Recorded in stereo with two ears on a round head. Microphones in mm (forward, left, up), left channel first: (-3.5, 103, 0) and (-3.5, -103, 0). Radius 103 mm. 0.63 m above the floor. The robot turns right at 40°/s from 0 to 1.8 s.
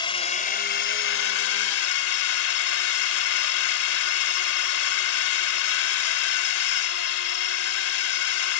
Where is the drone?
20° left; by 8.6 s 95° left.